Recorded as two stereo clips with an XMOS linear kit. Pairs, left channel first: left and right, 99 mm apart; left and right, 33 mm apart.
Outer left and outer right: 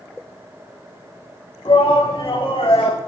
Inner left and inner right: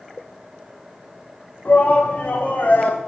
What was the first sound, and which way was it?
A shout, 70° left (ahead or behind).